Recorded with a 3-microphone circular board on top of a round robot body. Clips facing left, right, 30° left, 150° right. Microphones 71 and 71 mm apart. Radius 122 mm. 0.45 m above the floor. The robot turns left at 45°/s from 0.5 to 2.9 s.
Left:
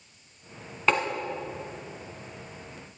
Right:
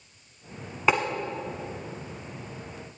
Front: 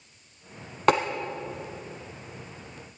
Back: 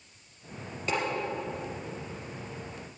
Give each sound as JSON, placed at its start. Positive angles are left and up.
{"t": 0.9, "sound": "tapping", "azimuth_deg": -5, "distance_m": 0.7}